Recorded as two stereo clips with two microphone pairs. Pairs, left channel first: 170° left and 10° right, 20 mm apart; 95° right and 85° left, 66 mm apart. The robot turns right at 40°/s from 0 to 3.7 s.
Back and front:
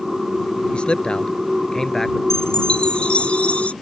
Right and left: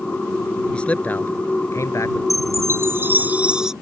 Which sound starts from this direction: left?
A chime, at 2.3 s.